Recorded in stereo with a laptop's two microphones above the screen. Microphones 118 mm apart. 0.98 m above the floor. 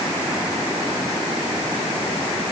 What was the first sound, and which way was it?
Only background noise.